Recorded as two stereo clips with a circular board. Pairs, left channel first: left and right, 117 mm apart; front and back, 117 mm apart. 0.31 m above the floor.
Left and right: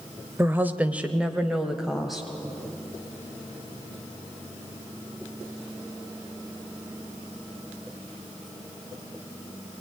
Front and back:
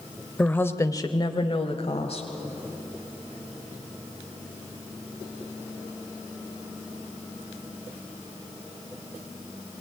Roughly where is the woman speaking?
Ahead right.